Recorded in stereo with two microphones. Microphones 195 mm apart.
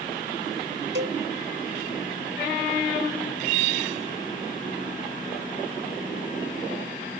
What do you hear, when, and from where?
0.9 s a cowbell: 70° right (ahead or behind)